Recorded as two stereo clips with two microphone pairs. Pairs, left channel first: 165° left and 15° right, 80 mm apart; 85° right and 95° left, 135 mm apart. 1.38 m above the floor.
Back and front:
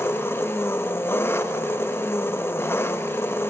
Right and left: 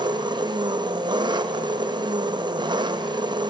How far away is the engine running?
About 0.7 m.